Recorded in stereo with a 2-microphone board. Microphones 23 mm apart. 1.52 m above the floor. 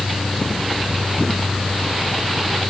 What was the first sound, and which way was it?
Only background noise.